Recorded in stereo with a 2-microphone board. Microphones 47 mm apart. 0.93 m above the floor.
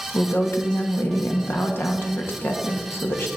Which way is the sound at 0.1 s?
55° left (ahead or behind).